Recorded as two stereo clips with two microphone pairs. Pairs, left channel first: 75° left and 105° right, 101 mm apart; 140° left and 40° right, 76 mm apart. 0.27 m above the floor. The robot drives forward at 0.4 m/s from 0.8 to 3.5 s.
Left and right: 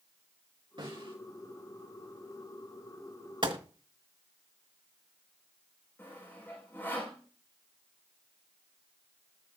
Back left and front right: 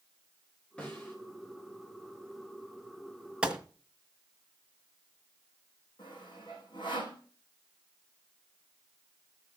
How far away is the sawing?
About 6 m.